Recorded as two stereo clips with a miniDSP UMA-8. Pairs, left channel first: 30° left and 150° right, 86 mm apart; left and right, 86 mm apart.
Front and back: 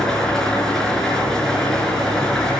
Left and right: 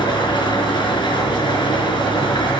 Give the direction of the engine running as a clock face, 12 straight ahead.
8 o'clock.